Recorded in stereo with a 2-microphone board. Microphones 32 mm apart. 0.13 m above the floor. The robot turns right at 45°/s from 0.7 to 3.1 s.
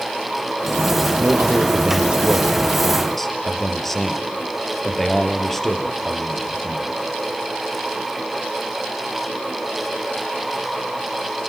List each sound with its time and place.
1.2 s a man speaking: 80° right, 3.5 m; by 6.9 s 5° left, 3.5 m